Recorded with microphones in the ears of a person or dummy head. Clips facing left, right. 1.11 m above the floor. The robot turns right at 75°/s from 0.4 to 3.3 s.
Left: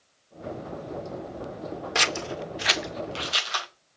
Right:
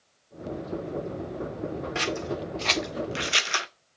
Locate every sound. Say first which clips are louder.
1.9 s scissors: even; 65° left (ahead or behind), 0.7 m; by 3.7 s 25° right (ahead or behind), 0.7 m